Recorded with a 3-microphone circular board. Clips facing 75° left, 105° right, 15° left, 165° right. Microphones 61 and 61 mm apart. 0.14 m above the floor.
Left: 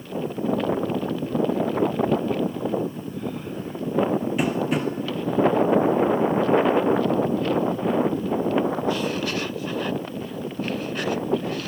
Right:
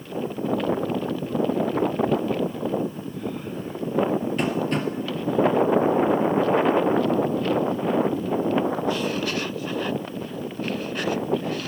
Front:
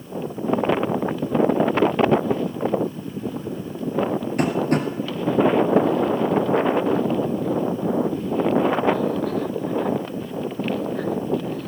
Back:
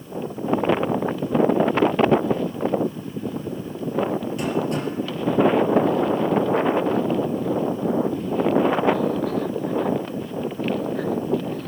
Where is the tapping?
5° right, 1.8 m.